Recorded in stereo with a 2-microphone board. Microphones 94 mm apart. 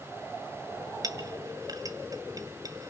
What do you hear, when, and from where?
1.0 s a clink: 40° right (ahead or behind), 1.7 m